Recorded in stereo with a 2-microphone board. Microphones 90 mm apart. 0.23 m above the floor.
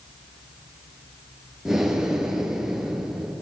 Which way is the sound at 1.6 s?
5° right (ahead or behind).